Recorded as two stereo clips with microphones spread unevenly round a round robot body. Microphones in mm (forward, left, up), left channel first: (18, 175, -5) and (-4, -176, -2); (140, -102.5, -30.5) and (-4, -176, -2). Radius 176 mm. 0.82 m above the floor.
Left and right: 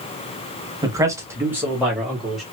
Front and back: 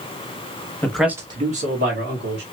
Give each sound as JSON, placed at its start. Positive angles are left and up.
{"t": 0.8, "sound": "a man speaking", "azimuth_deg": -20, "distance_m": 0.9}